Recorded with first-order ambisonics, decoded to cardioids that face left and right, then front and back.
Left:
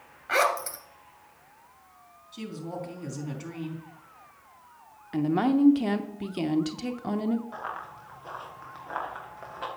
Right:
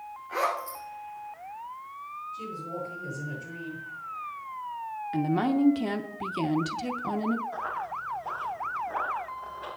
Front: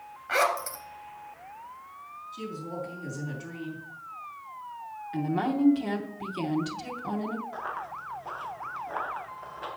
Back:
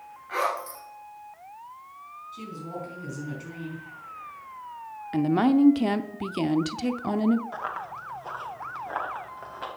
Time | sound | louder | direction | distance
0.3 | a zipper | left 4 dB, front 2 dB | 60° left | 2 m
2.3 | a woman speaking | left 2 dB, front 1 dB | 100° left | 4 m
5.1 | a woman speaking | left 2 dB, back 6 dB | 175° left | 0.7 m
7.5 | running footsteps | right 4 dB, back 2 dB | 170° left | 4.5 m